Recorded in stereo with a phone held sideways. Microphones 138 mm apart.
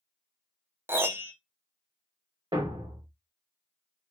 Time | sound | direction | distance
0.9 | a piano | 15° right (ahead or behind) | 0.5 m
2.5 | a thud | 35° right (ahead or behind) | 0.9 m